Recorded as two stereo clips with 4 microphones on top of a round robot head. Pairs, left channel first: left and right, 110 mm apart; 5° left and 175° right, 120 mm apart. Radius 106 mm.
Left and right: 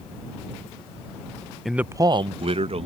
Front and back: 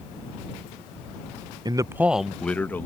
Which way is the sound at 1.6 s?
Straight behind.